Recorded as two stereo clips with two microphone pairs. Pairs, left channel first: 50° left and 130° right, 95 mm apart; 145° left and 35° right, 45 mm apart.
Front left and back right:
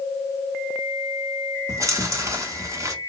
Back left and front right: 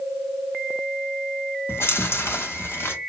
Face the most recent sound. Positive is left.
turn(degrees=170)